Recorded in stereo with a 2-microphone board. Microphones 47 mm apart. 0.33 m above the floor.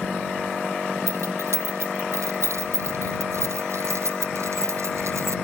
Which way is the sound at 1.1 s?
85° right.